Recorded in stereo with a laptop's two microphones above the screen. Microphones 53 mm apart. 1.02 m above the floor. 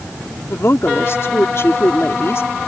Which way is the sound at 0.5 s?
55° left (ahead or behind).